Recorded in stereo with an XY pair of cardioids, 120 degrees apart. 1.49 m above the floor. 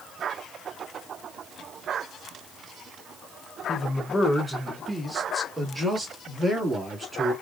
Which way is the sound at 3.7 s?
20° left.